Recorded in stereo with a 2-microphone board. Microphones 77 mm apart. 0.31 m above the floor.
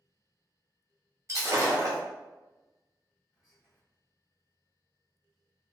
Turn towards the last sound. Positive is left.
turn(degrees=-10)  # may be behind; listen again after turning